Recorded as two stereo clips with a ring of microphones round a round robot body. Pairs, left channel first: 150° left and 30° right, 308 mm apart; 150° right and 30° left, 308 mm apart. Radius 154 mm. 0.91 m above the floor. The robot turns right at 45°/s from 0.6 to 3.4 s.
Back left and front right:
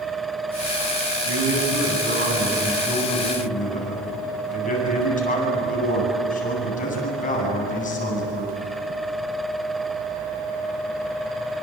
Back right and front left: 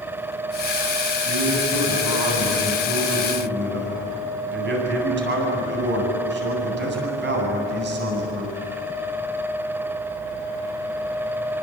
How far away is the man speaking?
About 9 m.